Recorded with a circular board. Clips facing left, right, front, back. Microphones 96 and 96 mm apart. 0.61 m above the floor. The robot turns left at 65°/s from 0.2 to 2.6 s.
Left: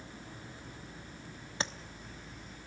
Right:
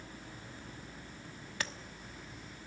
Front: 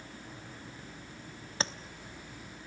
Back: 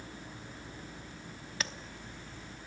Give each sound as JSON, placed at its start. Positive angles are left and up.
{"t": 1.6, "sound": "tapping", "azimuth_deg": 40, "distance_m": 0.9}